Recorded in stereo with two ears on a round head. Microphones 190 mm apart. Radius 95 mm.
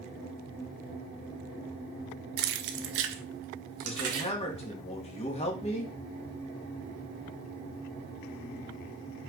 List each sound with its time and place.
2.4 s keys jangling: 45° right (ahead or behind), 0.9 m; by 4.3 s 80° right, 2 m
3.8 s a man speaking: 30° left (ahead or behind), 1.7 m